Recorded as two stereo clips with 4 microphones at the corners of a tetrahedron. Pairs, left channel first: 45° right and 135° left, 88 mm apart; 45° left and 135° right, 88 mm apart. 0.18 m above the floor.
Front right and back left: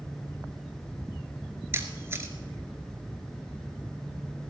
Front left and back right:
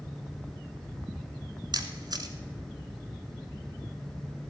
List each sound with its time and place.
1.7 s a camera shutter: 165° right, 1.0 m